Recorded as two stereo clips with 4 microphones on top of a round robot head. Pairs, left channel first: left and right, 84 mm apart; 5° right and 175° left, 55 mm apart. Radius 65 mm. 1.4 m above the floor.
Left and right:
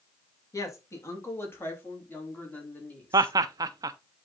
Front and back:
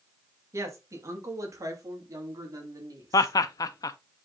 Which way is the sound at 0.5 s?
145° left.